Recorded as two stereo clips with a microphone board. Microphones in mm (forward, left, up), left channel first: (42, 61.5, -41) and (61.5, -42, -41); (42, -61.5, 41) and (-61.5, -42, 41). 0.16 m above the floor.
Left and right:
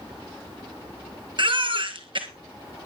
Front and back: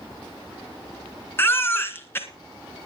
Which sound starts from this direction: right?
A baby crying, at 1.4 s.